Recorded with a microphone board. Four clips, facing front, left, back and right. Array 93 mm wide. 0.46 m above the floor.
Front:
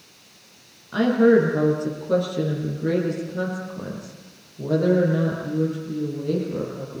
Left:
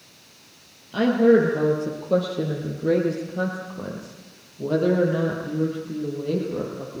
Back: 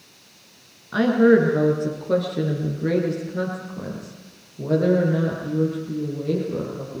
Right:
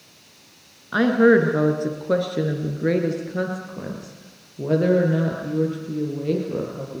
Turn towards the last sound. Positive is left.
turn(degrees=-110)